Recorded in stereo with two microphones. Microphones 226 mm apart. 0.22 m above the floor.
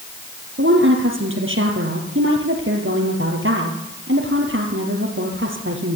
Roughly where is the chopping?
I don't hear chopping.